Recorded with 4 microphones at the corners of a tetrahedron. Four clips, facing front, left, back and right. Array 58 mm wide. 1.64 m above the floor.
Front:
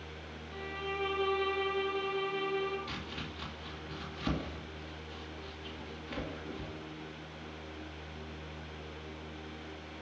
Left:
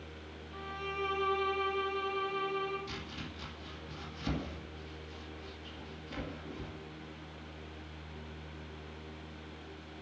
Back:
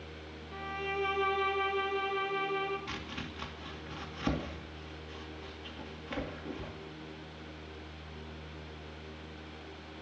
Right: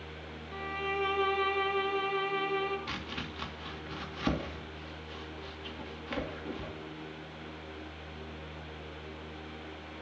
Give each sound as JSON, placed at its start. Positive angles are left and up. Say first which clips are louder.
{"t": 0.5, "sound": "a violin", "louder": "right 5 dB, back 2 dB", "azimuth_deg": -120, "distance_m": 4.0}
{"t": 2.9, "sound": "chopping", "louder": "right 5 dB, back 1 dB", "azimuth_deg": -120, "distance_m": 2.5}